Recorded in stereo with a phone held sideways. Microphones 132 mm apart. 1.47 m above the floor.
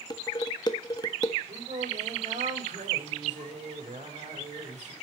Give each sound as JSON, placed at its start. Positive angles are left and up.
{"t": 0.1, "sound": "dishes clattering", "side_deg": 30, "distance_m": 1.3}
{"t": 1.5, "sound": "singing", "side_deg": -70, "distance_m": 6.5}